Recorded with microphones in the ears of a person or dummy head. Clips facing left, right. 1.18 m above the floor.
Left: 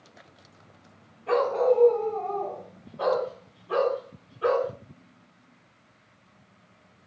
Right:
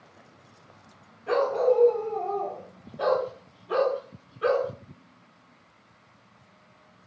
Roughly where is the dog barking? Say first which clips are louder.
Even; centre.